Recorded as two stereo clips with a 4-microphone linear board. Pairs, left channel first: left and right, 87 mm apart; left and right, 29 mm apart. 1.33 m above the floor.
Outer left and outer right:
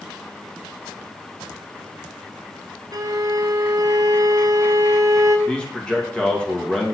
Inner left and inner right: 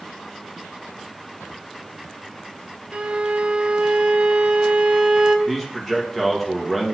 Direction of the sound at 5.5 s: 10° left (ahead or behind).